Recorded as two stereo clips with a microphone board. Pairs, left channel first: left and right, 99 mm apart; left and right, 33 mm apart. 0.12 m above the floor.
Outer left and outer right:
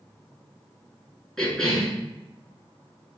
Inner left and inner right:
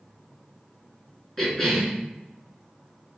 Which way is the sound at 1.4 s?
5° left (ahead or behind).